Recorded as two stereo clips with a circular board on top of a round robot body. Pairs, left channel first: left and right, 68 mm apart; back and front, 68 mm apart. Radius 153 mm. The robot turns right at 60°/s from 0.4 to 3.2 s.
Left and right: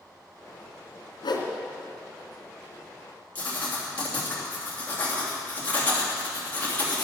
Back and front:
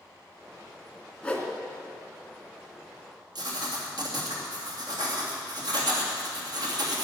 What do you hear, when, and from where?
1.2 s a whoosh: 110° left, 2.5 m; by 1.5 s 125° left, 2.5 m
3.4 s writing: 20° left, 3 m